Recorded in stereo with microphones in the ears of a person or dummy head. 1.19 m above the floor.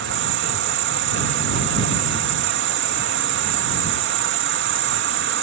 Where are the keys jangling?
No keys jangling in this recording.